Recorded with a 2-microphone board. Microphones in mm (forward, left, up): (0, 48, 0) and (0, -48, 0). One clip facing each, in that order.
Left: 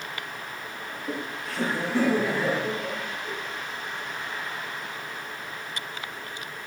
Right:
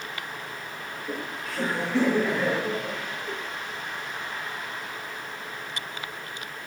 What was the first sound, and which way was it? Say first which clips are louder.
Laughter: left 1 dB; 30° left (ahead or behind).